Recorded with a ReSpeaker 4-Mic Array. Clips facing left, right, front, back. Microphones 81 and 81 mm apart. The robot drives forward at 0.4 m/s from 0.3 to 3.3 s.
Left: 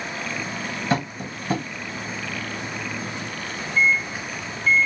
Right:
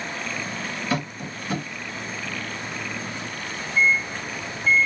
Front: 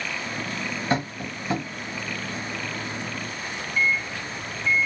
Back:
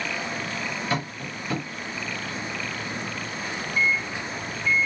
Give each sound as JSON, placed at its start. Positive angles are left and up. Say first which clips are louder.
{"t": 0.9, "sound": "tapping", "louder": "left 4 dB, front 3 dB", "azimuth_deg": 50, "distance_m": 2.0}
{"t": 3.8, "sound": "a microwave", "louder": "even, even", "azimuth_deg": -105, "distance_m": 0.6}